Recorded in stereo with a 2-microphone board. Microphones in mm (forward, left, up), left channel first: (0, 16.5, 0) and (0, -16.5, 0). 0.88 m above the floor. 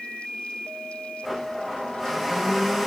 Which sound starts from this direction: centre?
A blender, at 1.2 s.